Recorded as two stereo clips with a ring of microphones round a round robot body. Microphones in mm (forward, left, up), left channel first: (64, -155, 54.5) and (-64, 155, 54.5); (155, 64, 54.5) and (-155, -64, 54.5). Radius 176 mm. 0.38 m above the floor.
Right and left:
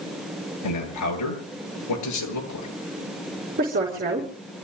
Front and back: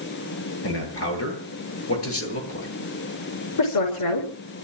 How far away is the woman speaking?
About 5.5 m.